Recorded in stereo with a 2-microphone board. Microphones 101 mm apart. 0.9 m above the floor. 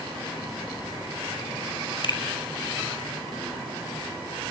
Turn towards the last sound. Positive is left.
turn(degrees=50)  # may be behind; listen again after turning